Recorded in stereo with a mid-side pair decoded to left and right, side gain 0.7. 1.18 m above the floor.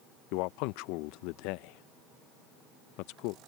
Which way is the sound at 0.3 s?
70° left.